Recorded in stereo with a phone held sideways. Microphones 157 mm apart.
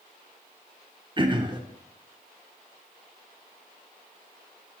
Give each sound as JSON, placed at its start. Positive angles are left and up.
{"t": 1.2, "sound": "throat clearing", "side_deg": -30, "distance_m": 0.6}